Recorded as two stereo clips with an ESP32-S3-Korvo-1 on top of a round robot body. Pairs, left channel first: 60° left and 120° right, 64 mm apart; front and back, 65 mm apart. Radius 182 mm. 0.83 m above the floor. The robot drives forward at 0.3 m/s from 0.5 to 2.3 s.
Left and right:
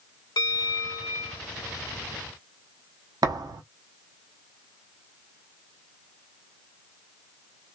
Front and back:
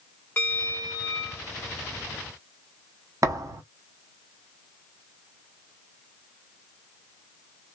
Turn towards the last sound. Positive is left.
turn(degrees=-140)